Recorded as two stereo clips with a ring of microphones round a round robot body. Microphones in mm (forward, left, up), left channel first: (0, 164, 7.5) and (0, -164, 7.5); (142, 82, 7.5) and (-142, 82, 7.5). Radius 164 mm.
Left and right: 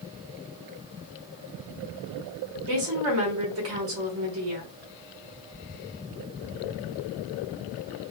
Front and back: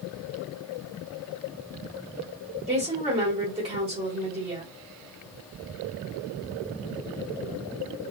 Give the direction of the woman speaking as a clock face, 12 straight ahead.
4 o'clock.